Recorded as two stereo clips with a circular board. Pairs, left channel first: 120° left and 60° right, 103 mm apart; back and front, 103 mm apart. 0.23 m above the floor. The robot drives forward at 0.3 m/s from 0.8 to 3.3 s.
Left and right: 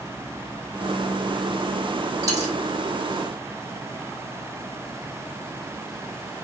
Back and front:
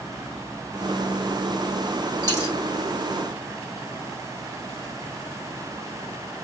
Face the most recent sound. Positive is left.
turn(degrees=-125)